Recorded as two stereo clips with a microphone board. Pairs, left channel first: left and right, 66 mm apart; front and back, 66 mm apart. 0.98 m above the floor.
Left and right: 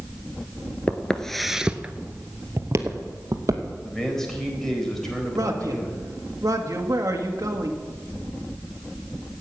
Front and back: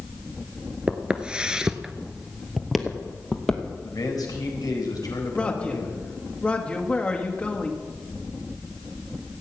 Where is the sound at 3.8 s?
5° left, 4 m.